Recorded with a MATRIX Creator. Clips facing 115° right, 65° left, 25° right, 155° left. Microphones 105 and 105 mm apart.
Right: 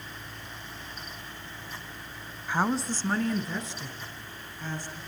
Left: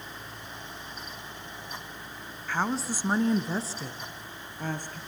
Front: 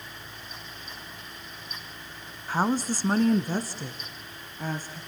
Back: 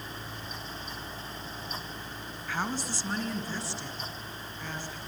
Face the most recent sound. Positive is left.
turn(degrees=30)